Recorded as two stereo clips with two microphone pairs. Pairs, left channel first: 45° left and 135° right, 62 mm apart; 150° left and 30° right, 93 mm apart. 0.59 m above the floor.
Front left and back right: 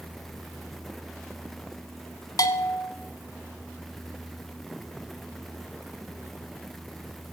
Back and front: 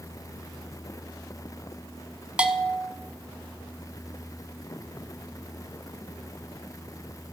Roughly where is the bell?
Ahead left.